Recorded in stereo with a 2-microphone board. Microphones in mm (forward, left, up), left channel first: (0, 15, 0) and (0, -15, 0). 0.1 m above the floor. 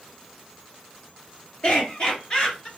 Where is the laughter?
35° left (ahead or behind), 2.0 m; by 2.7 s 25° left (ahead or behind), 1.8 m.